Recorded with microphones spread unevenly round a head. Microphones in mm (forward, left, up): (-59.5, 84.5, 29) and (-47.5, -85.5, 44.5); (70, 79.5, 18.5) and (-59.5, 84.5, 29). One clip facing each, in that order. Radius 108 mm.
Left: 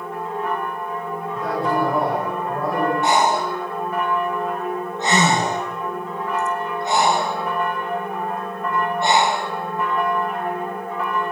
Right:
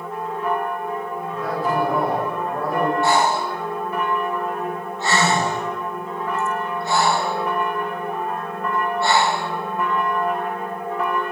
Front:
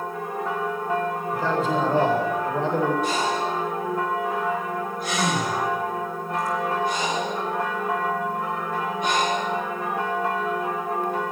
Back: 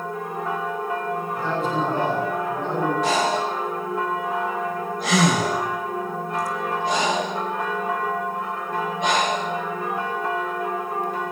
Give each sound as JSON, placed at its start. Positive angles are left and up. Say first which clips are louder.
{"t": 1.3, "sound": "a man speaking", "louder": "left 1 dB, front 2 dB", "azimuth_deg": 0, "distance_m": 8.0}
{"t": 3.0, "sound": "breathing", "louder": "left 1 dB, back 3 dB", "azimuth_deg": 165, "distance_m": 2.5}